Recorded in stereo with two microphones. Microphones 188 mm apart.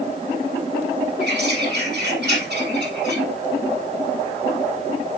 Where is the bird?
65° right (ahead or behind), 4.5 m.